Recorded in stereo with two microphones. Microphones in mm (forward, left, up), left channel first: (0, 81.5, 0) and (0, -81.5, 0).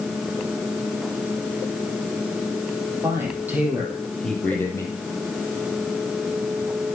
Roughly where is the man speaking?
Centre.